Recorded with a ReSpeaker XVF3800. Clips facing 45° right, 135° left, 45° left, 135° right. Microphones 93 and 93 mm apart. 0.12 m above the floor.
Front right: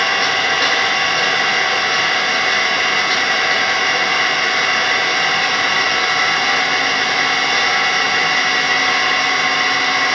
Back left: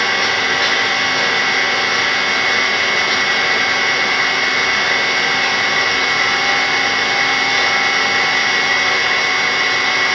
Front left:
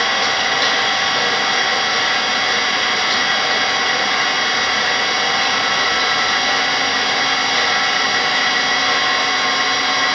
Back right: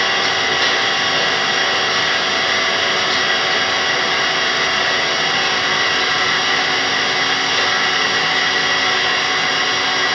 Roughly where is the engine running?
Behind right.